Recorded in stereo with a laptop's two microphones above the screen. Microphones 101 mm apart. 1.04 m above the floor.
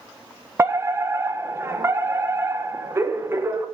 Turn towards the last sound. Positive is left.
turn(degrees=-25)  # may be behind; listen again after turning